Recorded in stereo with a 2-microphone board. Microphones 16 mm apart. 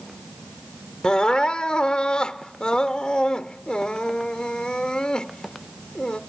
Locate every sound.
1.0 s crying: 70° left (ahead or behind), 0.8 m